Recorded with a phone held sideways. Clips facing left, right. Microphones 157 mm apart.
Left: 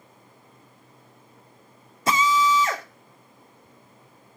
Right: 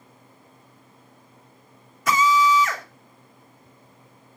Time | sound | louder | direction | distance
2.1 | a drill | right 2 dB | 30° left (ahead or behind) | 3 m